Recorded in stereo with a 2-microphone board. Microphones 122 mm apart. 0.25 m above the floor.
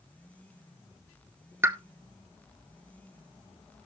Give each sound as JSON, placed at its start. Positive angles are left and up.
{"t": 1.6, "sound": "a pop", "side_deg": -20, "distance_m": 0.7}